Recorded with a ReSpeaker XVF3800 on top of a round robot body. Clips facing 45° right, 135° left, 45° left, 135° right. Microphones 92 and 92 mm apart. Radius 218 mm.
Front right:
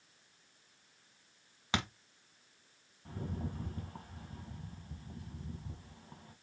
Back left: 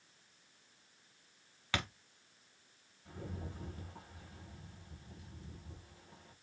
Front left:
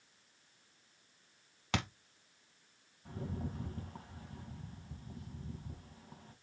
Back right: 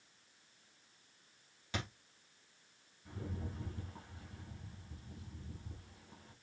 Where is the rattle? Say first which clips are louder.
Front right 5 dB, front left 4 dB; straight ahead, 4 m.